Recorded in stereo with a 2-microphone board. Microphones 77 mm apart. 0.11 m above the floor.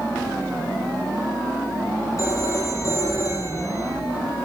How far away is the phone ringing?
About 2.5 m.